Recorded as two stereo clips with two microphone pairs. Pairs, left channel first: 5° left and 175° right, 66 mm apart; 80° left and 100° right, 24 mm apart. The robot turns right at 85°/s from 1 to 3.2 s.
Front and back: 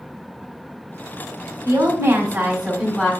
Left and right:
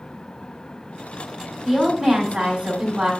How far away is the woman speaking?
About 2 m.